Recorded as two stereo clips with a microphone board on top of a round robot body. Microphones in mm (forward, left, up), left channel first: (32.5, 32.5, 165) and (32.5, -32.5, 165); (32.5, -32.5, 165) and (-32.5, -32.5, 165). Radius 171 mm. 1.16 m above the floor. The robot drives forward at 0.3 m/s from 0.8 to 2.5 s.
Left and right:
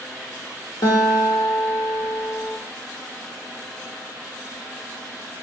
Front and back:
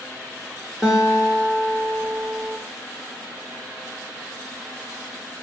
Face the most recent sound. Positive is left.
turn(degrees=130)